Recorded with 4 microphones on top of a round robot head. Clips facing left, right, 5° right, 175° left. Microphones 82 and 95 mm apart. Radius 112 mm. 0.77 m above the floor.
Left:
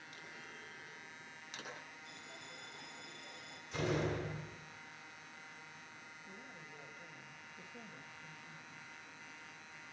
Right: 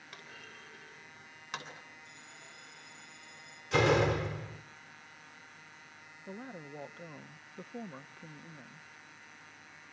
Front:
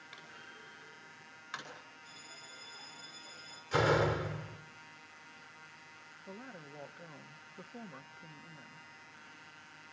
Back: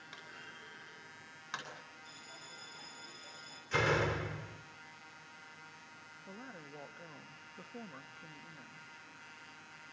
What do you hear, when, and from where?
0.1 s a clunk: 110° right, 9.5 m
2.0 s a bell: 120° left, 9 m
3.7 s a door slam: 80° right, 2 m
6.3 s a woman speaking: 85° right, 1.1 m